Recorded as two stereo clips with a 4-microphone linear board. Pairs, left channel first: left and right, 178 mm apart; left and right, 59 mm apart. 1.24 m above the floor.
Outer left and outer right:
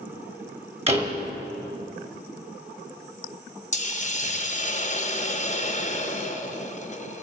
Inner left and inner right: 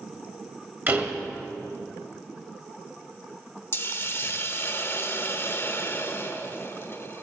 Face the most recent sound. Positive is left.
turn(degrees=40)  # may be behind; listen again after turning